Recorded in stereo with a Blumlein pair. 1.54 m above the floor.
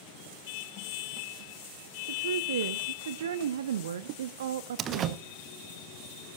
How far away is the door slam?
About 1.1 m.